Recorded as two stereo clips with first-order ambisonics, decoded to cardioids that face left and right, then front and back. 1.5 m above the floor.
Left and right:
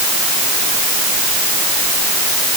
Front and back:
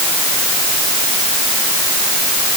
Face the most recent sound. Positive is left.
No sound to turn to.